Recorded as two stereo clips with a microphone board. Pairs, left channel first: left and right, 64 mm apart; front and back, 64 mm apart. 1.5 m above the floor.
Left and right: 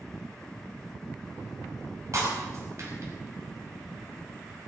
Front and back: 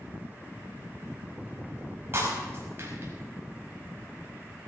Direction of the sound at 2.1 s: 125° right.